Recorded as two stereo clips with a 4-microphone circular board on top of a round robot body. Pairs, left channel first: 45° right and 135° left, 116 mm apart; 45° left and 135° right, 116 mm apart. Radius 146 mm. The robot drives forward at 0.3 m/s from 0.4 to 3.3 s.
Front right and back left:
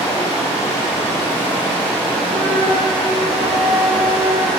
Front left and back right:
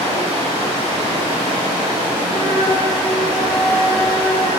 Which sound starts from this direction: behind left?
A flute, at 2.3 s.